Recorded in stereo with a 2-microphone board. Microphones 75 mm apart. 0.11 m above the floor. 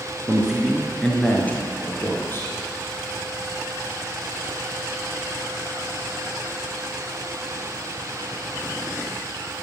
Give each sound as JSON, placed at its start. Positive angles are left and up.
{"t": 0.3, "sound": "a man speaking", "side_deg": -15, "distance_m": 1.1}